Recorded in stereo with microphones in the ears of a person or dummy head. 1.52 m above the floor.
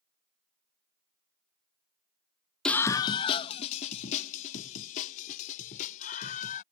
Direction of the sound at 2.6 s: Centre (ahead or behind).